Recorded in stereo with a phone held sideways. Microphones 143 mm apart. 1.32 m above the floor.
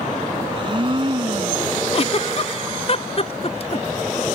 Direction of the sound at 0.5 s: 35° right (ahead or behind).